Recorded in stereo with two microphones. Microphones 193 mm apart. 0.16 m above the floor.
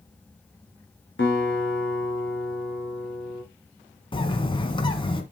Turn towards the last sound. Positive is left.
turn(degrees=25)  # may be behind; listen again after turning